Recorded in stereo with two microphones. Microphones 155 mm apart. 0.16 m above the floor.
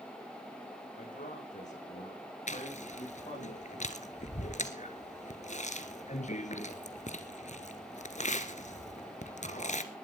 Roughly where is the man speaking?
Left.